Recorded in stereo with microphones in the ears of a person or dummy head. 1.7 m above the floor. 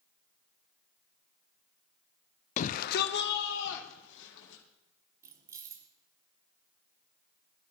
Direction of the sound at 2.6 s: 40° left (ahead or behind).